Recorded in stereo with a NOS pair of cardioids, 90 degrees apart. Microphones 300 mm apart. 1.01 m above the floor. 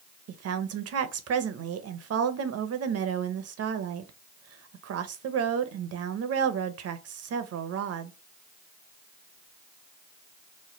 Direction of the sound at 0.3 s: 55° right.